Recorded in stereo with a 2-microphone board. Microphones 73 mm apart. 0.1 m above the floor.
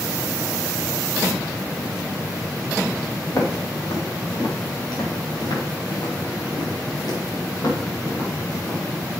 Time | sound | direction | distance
3.3 | footsteps | 50° left (ahead or behind) | 5 m